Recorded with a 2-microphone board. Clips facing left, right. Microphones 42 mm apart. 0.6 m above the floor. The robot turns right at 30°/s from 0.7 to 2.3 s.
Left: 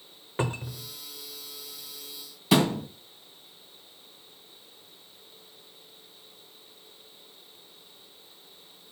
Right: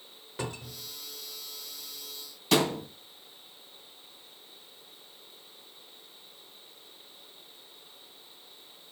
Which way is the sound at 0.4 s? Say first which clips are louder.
Left 6 dB; 35° left (ahead or behind).